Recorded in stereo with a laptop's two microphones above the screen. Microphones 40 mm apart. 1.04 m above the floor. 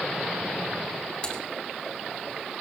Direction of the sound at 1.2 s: 25° left (ahead or behind).